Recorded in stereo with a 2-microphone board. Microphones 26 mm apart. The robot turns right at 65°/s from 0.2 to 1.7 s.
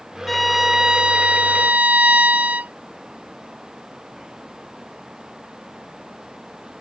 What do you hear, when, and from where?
0.3 s a violin: 175° left; by 2.7 s 95° right